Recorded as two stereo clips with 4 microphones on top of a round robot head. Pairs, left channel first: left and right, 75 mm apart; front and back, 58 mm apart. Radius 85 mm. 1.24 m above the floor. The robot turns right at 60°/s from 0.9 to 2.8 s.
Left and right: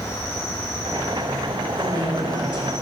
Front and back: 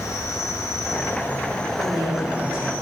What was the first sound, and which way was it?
An insect, 25° left.